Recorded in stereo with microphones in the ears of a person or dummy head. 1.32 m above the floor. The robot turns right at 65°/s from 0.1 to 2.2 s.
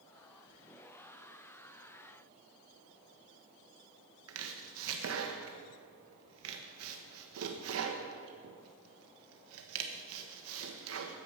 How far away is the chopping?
About 1.2 m.